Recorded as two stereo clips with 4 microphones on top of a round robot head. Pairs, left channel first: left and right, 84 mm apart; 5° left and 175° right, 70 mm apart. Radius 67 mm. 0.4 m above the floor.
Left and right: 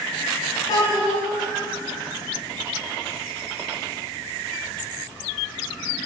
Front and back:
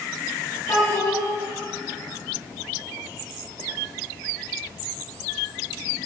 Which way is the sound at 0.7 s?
45° left.